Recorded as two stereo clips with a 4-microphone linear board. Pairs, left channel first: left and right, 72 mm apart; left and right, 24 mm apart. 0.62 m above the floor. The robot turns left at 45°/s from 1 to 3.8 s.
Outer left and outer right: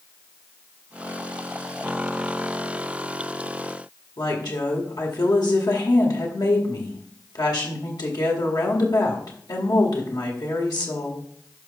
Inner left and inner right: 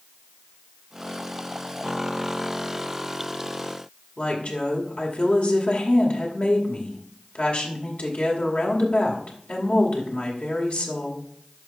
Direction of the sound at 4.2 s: 65° left (ahead or behind).